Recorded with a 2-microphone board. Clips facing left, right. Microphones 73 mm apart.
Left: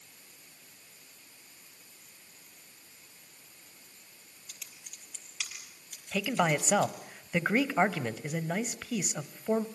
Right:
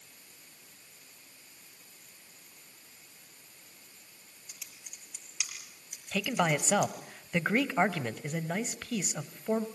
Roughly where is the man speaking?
Centre.